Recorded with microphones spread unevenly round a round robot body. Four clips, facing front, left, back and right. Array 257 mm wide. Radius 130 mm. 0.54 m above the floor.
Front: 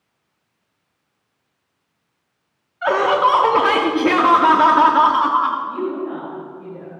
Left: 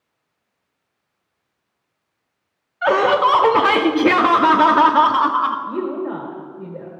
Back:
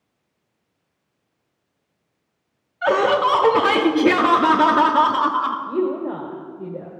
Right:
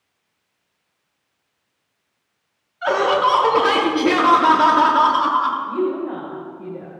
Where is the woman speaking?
150° left, 1.7 m.